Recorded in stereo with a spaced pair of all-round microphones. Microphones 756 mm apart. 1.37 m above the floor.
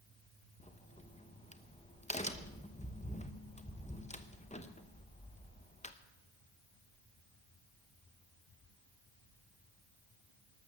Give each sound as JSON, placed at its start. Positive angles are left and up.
{"t": 0.6, "sound": "a crack", "side_deg": 10, "distance_m": 0.9}